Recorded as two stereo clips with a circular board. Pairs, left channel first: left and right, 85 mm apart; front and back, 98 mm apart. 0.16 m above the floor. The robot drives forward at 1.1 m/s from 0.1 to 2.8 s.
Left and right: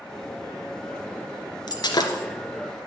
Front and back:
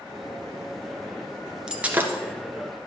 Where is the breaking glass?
100° left, 1.5 m; by 2.2 s 120° left, 1.7 m.